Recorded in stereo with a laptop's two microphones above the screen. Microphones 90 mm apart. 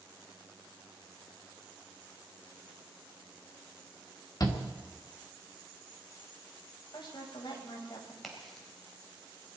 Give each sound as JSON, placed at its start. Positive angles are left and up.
{"t": 4.4, "sound": "a shout", "side_deg": 45, "distance_m": 1.5}
{"t": 6.9, "sound": "a woman speaking", "side_deg": 60, "distance_m": 5.0}
{"t": 8.2, "sound": "a crack", "side_deg": 0, "distance_m": 4.0}